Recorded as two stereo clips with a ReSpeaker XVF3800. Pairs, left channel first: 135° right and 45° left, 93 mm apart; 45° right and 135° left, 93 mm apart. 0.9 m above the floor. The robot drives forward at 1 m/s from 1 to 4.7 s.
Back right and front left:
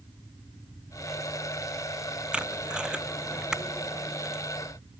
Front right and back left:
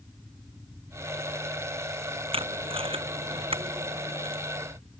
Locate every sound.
2.3 s tape being pulled: 125° left; by 4.4 s 130° left